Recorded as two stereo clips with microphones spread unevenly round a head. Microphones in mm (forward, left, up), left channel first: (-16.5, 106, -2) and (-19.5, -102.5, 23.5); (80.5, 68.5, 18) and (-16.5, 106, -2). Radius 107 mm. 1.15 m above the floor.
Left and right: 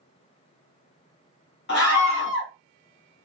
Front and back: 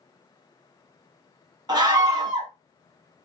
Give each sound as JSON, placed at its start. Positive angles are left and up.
{"t": 1.7, "sound": "a scream", "azimuth_deg": 120, "distance_m": 1.5}